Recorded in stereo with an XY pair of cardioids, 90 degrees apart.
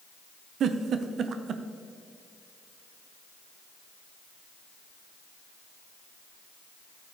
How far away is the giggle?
About 0.6 m.